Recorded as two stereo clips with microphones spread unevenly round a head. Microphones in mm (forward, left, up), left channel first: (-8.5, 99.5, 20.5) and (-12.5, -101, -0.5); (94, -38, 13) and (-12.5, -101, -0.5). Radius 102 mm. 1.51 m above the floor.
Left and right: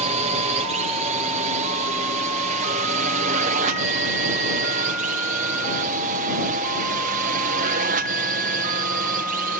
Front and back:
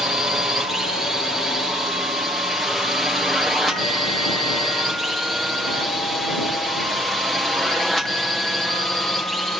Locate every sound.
0.0 s a drone: 65° right; by 9.6 s 60° right